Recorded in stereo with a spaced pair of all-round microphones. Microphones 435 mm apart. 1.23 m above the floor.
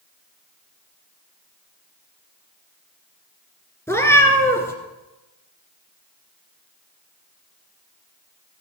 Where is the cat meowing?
5° left (ahead or behind), 1.8 m.